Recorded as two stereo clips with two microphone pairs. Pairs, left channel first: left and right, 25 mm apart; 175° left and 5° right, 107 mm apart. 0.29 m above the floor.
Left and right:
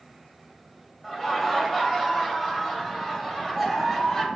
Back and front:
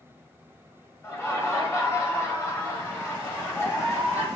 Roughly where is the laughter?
Behind.